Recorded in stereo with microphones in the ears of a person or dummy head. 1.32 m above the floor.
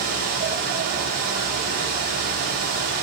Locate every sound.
0.0 s a fan: 55° right (ahead or behind), 4 m